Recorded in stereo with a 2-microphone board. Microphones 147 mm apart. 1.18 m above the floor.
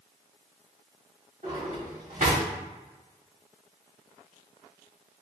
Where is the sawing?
I don't hear sawing.